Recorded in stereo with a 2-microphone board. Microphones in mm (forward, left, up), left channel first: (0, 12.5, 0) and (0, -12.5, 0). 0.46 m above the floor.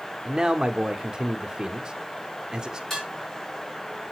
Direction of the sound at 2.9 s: 20° left (ahead or behind).